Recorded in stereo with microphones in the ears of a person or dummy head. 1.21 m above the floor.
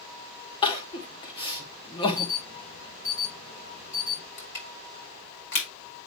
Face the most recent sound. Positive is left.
turn(degrees=60)  # may be behind; listen again after turning